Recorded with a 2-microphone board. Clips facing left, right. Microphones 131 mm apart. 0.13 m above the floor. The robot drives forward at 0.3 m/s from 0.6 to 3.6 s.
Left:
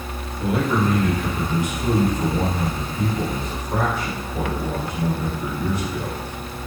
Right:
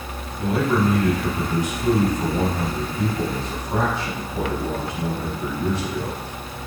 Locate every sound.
0.4 s a man speaking: 20° right (ahead or behind), 3.5 m